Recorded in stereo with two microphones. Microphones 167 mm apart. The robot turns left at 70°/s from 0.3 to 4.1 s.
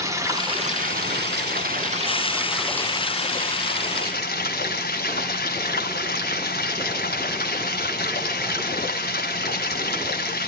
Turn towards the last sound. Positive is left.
turn(degrees=75)